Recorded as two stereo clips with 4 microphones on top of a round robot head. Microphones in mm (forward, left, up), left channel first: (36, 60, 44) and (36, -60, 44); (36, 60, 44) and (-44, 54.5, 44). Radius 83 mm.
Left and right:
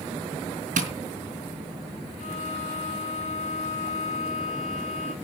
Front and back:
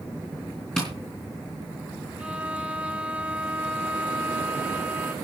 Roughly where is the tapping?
Right.